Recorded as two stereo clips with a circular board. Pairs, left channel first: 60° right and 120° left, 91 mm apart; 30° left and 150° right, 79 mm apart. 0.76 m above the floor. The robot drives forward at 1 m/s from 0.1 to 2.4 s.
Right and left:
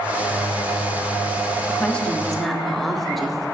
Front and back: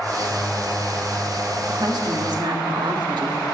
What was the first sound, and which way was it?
A woman speaking, 130° right.